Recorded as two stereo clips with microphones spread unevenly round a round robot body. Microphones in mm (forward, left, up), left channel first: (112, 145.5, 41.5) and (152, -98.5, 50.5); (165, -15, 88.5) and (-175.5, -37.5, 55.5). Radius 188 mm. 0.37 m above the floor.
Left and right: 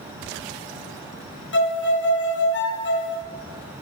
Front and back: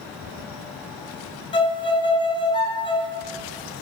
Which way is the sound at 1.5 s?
80° left.